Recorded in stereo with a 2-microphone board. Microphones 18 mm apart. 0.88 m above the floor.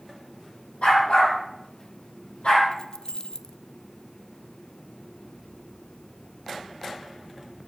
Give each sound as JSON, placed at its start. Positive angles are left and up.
{"t": 0.8, "sound": "a dog barking", "side_deg": 85, "distance_m": 8.5}
{"t": 2.7, "sound": "keys jangling", "side_deg": 50, "distance_m": 0.6}